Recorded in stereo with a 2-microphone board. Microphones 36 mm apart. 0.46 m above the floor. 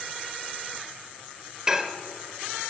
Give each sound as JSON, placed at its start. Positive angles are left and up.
{"t": 1.7, "sound": "dishes clattering", "side_deg": -15, "distance_m": 0.9}